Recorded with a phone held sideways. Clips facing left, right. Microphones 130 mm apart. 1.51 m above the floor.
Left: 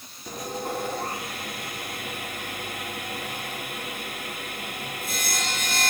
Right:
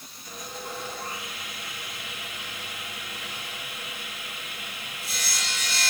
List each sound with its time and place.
0.3 s sawing: 50° left (ahead or behind), 1.2 m